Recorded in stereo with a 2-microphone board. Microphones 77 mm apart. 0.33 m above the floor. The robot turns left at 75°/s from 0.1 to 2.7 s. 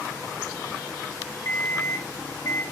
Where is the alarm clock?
135° left, 0.6 m; by 2.6 s 45° left, 0.6 m.